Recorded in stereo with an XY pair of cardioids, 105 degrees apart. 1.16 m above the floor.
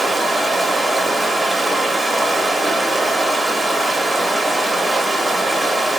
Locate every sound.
0.0 s running water: 20° right, 0.7 m